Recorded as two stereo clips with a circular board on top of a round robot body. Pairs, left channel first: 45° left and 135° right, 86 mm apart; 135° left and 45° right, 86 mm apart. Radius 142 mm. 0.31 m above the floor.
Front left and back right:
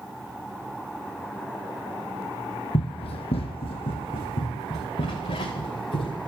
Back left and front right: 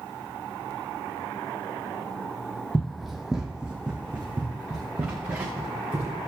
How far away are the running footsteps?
About 0.5 m.